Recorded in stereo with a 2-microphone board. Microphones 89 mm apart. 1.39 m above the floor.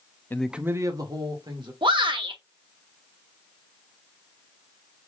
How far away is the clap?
No clap in this recording.